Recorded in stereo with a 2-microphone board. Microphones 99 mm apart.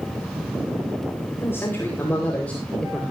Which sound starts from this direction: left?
A man speaking, at 1.4 s.